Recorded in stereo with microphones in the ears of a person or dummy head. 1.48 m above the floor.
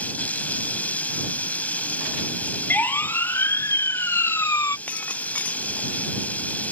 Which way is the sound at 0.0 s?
5° left (ahead or behind).